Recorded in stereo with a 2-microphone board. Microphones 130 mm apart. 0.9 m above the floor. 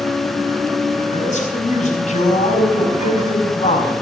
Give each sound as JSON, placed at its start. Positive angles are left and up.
{"t": 1.1, "sound": "a man speaking", "side_deg": 70, "distance_m": 4.5}